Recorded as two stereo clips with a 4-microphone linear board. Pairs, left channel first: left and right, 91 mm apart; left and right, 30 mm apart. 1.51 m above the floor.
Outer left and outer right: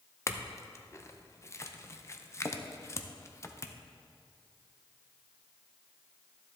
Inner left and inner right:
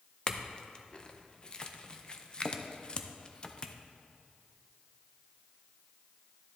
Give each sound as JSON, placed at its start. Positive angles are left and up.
{"t": 0.3, "sound": "a clink", "side_deg": 30, "distance_m": 0.6}